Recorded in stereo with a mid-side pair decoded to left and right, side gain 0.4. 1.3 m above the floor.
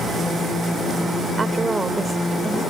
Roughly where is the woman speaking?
Ahead right.